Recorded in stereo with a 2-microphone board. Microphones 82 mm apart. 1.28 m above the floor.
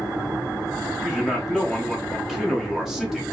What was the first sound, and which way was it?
A man speaking, 5° right (ahead or behind).